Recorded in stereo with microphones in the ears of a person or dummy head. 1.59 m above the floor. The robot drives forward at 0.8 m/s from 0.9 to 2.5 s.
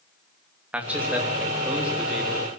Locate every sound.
0.7 s a man speaking: 5° right (ahead or behind), 2.5 m